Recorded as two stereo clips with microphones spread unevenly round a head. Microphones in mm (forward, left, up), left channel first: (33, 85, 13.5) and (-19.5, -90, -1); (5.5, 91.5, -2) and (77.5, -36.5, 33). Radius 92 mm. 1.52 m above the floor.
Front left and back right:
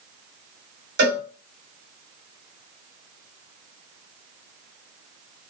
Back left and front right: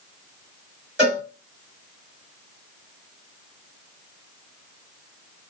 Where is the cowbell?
140° right, 2 m.